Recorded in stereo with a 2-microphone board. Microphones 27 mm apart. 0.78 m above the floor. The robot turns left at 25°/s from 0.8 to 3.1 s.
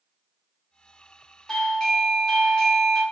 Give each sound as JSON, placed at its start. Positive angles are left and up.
{"t": 1.5, "sound": "a doorbell", "side_deg": 15, "distance_m": 0.8}